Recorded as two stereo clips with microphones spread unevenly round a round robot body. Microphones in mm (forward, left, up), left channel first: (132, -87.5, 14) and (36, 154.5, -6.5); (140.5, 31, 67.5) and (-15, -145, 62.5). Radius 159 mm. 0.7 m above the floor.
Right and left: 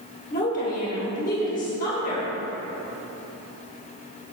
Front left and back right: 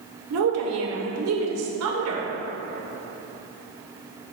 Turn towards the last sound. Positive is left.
turn(degrees=-135)